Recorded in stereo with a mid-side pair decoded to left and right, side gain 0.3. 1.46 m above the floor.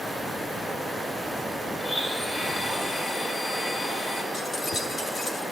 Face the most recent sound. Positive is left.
turn(degrees=65)